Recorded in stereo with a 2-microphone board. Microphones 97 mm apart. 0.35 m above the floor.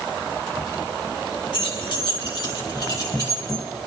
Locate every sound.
1.5 s keys jangling: 60° left (ahead or behind), 2.5 m; by 3.6 s 35° left (ahead or behind), 3 m